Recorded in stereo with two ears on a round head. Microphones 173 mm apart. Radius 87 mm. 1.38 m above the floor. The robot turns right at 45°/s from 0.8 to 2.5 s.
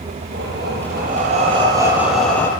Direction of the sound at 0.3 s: 65° right.